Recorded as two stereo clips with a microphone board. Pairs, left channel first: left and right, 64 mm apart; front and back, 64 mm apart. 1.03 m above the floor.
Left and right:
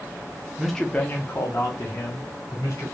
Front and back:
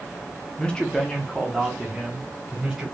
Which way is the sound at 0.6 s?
15° right.